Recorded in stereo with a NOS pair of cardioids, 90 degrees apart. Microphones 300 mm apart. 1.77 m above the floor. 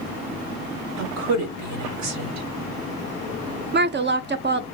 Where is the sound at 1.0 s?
65° right, 1.3 m.